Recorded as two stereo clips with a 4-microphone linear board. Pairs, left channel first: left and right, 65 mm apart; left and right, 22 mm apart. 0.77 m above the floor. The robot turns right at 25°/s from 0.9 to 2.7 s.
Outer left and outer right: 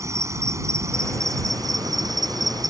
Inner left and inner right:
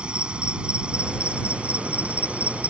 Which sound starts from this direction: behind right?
An insect, at 0.0 s.